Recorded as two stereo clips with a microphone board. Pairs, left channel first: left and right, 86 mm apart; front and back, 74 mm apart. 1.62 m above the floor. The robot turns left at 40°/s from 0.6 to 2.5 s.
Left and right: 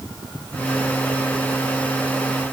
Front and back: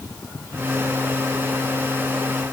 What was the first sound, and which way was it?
Only background noise.